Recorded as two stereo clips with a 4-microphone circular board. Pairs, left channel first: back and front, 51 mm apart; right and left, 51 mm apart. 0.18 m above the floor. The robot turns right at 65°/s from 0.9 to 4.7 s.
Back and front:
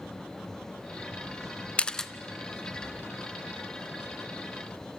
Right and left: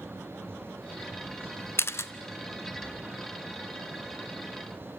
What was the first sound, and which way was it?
A camera shutter, 115° right.